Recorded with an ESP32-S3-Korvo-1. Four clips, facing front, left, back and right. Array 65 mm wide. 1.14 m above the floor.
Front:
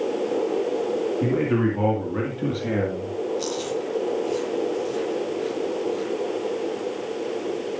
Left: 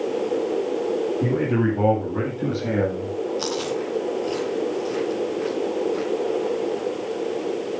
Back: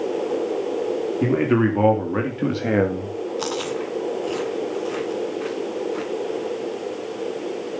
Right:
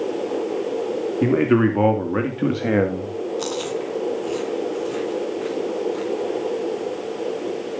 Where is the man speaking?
115° right, 3 m; by 3.1 s 140° right, 1.6 m.